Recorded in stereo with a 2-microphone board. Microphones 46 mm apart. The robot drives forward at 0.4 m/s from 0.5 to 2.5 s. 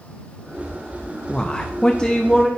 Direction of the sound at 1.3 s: 20° left (ahead or behind).